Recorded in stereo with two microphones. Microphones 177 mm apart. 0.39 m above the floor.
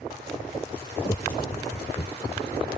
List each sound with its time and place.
1.1 s laughter: 30° left (ahead or behind); by 2.4 s 25° left (ahead or behind)